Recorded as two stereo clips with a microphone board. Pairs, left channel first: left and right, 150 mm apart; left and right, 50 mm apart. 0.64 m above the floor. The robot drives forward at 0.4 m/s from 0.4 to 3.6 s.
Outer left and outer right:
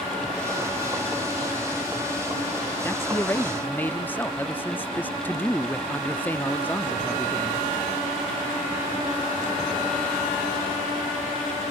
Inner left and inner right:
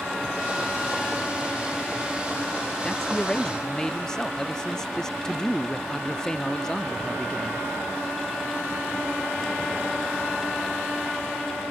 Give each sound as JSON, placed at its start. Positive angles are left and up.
{"t": 2.8, "sound": "a man speaking", "side_deg": 15}